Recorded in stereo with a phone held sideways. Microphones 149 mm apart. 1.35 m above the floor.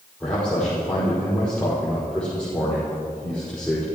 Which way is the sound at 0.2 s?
5° left (ahead or behind).